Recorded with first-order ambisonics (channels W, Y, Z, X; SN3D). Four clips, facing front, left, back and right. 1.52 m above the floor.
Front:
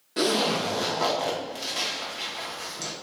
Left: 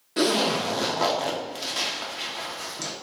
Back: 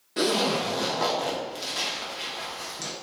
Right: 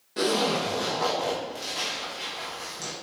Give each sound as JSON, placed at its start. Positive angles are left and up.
{"t": 0.2, "sound": "a zipper", "azimuth_deg": 85, "distance_m": 0.6}